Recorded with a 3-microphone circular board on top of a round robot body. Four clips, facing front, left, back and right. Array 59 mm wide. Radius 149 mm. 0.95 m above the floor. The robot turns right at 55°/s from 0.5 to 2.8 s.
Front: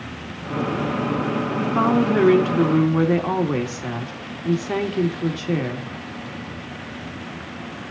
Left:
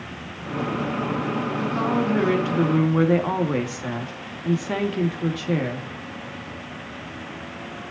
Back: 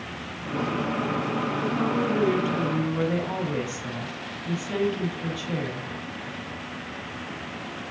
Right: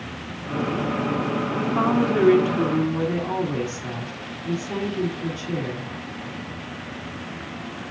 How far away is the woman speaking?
About 1.9 m.